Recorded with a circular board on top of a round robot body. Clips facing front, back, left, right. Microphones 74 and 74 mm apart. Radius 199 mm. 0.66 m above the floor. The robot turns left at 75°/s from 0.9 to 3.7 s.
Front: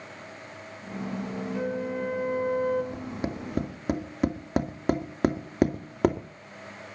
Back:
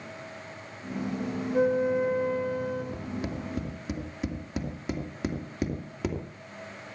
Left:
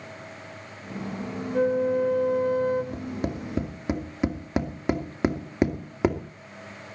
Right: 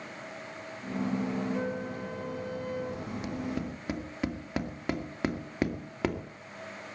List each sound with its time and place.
1.5 s a flute: 130° left, 3.5 m; by 2.8 s 35° left, 3.5 m
2.9 s tapping: 75° left, 2.5 m; by 6.2 s 20° left, 2.5 m